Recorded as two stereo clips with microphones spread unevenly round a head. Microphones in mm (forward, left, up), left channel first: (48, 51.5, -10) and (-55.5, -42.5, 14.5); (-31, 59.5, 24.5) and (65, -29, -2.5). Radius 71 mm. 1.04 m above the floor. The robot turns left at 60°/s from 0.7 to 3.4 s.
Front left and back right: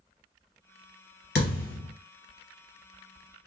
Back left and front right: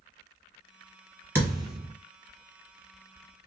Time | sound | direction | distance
1.4 | a thud | 35° left | 1.8 m